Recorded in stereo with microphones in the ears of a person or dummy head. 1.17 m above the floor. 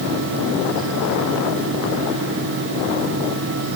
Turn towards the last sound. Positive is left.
No sound to turn to.